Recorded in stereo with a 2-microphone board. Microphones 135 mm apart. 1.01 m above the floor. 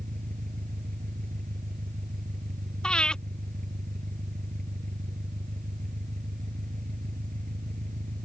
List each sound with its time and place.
0.0 s an engine running: 85° right
2.8 s breathing: 5° left (ahead or behind)